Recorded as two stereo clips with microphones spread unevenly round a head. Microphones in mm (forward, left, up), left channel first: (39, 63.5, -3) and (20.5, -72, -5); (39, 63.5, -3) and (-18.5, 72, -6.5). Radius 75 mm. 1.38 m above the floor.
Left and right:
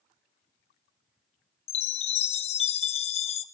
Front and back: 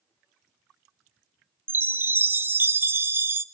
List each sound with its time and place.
1.7 s a chime: 120° left, 0.6 m